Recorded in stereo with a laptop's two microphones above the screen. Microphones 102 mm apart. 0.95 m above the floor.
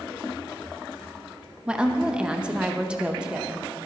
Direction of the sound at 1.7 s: 10° right (ahead or behind).